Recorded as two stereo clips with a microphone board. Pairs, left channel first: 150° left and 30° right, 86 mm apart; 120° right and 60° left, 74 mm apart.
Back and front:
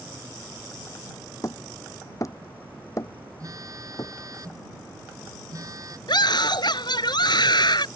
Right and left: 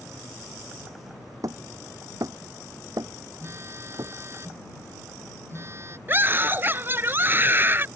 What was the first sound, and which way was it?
Hammering, 100° left.